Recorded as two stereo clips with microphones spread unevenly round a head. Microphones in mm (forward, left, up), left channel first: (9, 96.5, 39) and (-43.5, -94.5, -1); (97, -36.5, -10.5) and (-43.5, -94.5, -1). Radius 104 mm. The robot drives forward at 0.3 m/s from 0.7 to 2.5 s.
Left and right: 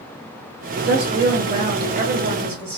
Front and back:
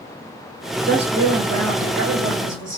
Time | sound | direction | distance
0.8 | a woman speaking | 160° right | 1.2 m